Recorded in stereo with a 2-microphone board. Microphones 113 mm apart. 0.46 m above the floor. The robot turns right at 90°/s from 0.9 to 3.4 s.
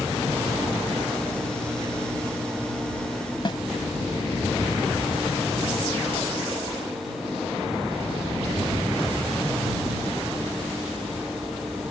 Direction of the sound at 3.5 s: 45° left (ahead or behind).